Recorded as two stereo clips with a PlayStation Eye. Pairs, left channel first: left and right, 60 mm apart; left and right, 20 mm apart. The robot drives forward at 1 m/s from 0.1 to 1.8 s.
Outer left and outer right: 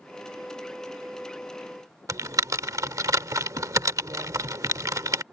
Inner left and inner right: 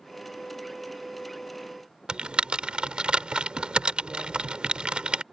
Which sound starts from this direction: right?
Typing on a keyboard, at 2.1 s.